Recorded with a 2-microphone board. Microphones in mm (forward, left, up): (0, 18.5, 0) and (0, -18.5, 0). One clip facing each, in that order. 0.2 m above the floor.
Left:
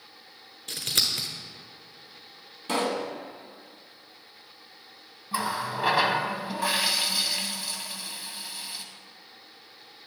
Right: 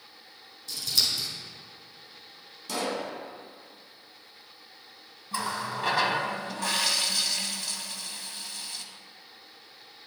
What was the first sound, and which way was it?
Scissors, 55° left (ahead or behind).